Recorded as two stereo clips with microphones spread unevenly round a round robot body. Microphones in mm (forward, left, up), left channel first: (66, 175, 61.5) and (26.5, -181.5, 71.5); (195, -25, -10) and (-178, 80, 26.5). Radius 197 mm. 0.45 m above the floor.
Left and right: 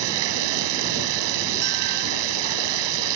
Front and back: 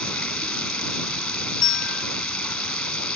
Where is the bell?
75° right.